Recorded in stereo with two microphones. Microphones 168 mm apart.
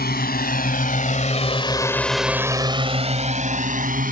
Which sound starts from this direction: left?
A drone, at 0.0 s.